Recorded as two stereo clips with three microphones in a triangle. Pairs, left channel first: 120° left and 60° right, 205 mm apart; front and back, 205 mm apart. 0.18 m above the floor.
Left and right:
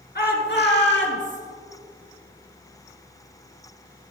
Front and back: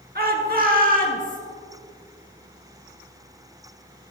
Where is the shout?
150° left, 2 m; by 1.4 s 135° left, 3 m.